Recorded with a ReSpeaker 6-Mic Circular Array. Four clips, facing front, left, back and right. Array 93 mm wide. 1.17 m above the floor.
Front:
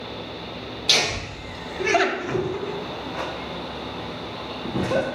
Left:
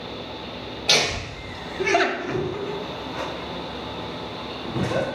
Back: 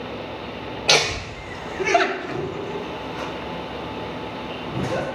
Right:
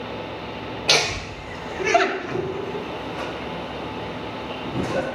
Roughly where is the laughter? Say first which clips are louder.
Right 1 dB, back 5 dB; behind right.